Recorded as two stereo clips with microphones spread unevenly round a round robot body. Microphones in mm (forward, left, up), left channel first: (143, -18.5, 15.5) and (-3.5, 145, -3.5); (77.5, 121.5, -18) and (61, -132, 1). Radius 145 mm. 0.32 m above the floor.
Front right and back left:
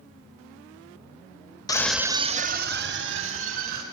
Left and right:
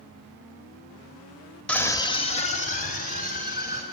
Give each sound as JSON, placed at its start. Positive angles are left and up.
{"t": 1.7, "sound": "a scream", "azimuth_deg": 15, "distance_m": 1.0}